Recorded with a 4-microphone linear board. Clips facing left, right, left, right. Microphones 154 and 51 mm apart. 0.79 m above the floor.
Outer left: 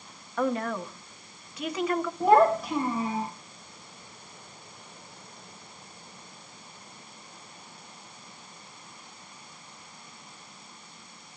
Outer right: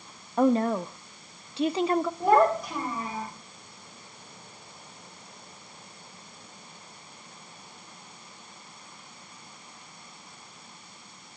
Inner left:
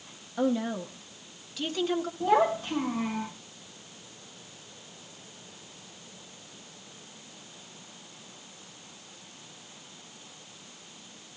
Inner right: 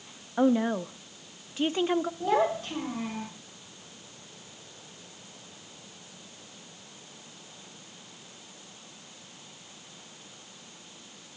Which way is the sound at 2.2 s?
5° left (ahead or behind).